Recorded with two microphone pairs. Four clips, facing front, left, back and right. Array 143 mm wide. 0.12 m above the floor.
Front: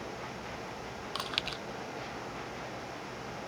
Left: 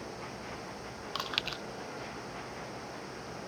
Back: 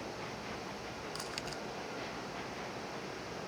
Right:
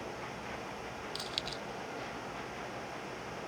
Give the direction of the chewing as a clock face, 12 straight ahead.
10 o'clock.